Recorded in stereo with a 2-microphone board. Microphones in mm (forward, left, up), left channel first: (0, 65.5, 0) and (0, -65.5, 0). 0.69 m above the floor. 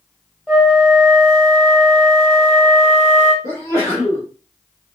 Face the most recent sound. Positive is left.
turn(degrees=15)  # may be behind; listen again after turning